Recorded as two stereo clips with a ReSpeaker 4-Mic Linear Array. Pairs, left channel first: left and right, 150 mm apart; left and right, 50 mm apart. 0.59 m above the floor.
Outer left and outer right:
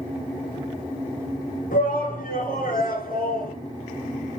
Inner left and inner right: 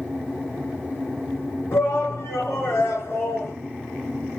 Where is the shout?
65° left (ahead or behind), 8 m.